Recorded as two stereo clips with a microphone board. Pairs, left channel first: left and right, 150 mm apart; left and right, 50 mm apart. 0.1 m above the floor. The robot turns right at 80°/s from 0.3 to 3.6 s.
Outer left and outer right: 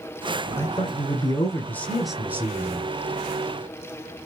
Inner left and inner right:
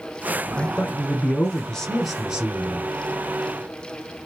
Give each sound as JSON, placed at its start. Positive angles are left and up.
{"t": 0.6, "sound": "a man speaking", "azimuth_deg": 60, "distance_m": 1.7}